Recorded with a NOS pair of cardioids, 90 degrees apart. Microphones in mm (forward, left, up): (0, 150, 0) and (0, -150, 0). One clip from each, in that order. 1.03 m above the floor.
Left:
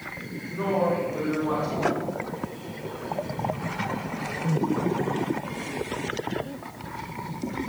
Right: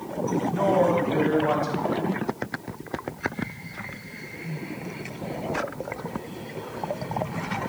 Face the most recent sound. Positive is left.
turn(degrees=10)